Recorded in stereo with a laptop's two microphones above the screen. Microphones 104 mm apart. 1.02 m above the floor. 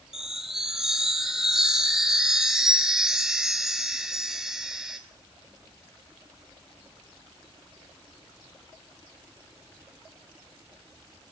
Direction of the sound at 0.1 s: 5° right (ahead or behind).